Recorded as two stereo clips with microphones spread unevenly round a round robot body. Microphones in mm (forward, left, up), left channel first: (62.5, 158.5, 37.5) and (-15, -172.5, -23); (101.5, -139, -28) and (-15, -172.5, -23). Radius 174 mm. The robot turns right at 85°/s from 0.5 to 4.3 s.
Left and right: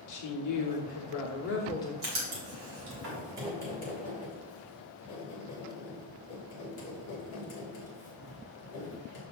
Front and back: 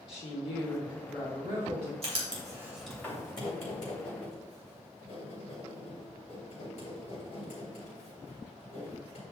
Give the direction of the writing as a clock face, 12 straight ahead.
5 o'clock.